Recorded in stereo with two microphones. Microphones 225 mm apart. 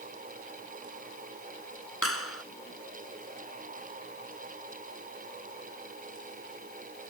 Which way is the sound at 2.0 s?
80° left.